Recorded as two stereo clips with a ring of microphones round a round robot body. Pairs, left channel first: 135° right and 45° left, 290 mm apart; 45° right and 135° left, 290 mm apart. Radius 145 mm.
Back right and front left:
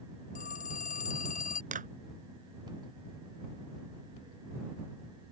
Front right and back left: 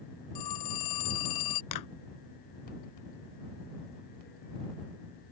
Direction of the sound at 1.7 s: 20° right.